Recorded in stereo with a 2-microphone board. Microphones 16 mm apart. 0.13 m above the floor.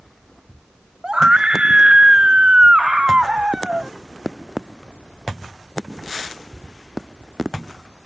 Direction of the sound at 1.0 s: 75° right (ahead or behind).